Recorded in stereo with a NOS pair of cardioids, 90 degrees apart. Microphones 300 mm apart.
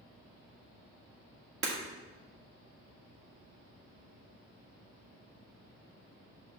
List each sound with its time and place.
1.6 s breaking glass: 45° right, 1.8 m